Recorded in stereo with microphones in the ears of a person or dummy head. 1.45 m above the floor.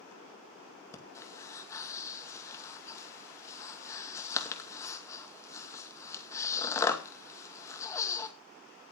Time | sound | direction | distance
0.9 | breathing | 15° left (ahead or behind) | 2 m